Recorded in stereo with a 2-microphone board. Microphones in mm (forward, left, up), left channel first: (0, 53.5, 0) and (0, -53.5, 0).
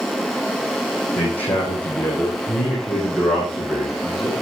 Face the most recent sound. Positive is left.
turn(degrees=-5)  # may be behind; listen again after turning